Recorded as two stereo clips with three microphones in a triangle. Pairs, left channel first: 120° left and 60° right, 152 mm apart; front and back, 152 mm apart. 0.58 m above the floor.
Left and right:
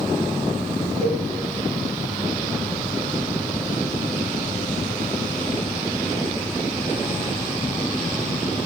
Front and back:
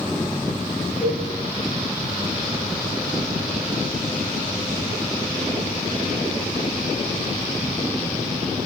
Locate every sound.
1.0 s a cowbell: 25° right, 3.5 m